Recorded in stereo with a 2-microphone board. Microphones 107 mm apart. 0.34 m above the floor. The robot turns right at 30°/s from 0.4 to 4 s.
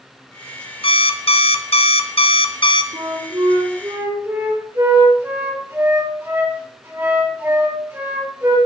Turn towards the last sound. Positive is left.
turn(degrees=-25)